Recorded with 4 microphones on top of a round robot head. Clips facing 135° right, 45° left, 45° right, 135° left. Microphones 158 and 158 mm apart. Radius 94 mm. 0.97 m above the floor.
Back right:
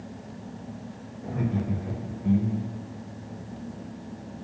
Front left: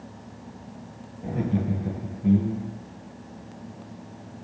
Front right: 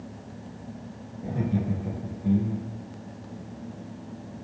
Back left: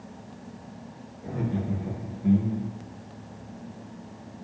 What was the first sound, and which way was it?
Laughter, 10° right.